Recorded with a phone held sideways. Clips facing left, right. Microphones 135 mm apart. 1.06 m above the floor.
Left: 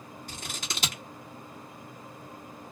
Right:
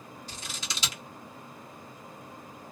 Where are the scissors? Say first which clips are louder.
Left 3 dB; 55° left (ahead or behind), 1.0 m.